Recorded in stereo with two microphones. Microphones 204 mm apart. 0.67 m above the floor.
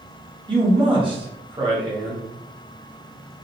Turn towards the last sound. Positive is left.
turn(degrees=-25)  # may be behind; listen again after turning